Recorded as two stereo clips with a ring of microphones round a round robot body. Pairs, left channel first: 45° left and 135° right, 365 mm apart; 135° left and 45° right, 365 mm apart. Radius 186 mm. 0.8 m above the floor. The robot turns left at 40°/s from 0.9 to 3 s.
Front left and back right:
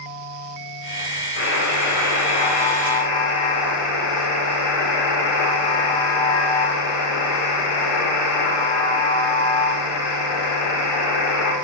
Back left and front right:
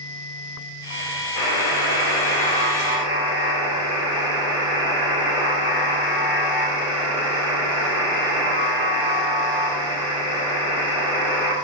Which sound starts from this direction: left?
A buzzer, at 1.4 s.